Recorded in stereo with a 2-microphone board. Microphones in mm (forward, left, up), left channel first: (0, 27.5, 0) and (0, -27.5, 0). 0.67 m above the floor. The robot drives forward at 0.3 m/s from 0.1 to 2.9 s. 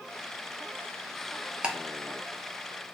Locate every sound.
1.6 s ticking: 20° right (ahead or behind), 0.6 m